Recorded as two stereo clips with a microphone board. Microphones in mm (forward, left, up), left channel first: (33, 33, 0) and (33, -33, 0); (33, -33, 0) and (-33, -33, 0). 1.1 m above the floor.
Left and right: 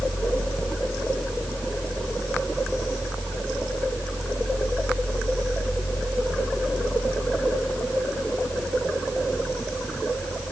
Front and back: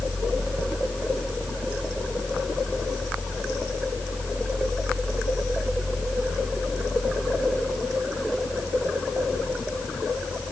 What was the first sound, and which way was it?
Only background noise.